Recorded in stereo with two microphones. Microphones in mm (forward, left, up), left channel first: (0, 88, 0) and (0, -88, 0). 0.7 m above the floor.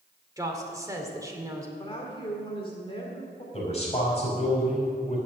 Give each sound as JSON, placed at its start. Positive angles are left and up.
{"t": 0.4, "sound": "a woman speaking", "side_deg": -20, "distance_m": 2.0}
{"t": 1.8, "sound": "a woman speaking", "side_deg": 30, "distance_m": 1.9}
{"t": 3.5, "sound": "a man speaking", "side_deg": 35, "distance_m": 5.5}